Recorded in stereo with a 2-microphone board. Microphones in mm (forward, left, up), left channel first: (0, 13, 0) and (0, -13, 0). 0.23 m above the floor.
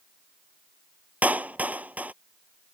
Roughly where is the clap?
Right.